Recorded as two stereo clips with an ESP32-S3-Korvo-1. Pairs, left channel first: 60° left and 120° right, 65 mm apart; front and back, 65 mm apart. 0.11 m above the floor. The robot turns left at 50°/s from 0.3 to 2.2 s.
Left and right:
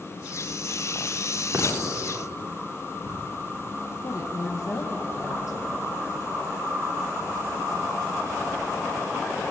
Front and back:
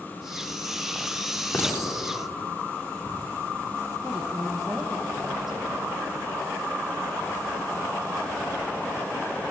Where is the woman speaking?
95° left, 4 m.